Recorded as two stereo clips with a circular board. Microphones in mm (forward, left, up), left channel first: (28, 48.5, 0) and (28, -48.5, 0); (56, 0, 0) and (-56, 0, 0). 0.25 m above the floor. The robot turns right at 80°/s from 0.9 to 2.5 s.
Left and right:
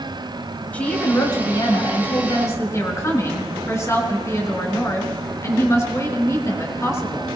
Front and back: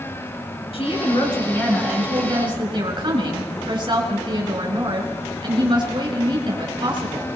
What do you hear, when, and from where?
0.7 s a woman speaking: 15° left, 4 m; by 7.3 s 145° left, 4 m